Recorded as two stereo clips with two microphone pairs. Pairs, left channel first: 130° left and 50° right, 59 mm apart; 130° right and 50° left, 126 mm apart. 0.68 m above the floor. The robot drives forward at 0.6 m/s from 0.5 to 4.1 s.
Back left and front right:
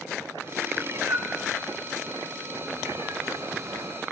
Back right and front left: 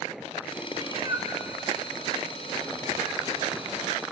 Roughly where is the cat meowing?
Ahead.